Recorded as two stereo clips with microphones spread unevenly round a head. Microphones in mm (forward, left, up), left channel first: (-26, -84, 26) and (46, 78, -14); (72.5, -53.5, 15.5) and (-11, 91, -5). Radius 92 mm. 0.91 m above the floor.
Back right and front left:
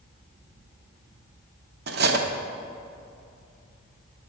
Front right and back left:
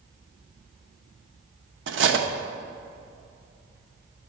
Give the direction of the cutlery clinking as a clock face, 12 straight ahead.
8 o'clock.